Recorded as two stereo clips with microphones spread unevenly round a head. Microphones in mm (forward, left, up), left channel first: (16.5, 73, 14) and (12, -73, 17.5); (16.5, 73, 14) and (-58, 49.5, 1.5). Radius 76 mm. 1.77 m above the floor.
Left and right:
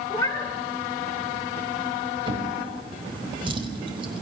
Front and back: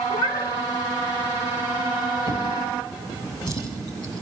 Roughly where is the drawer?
Ahead right.